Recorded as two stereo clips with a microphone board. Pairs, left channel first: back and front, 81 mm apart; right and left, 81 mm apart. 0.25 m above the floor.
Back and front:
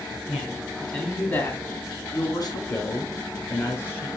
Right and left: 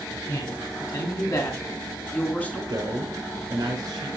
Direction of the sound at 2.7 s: 125° left.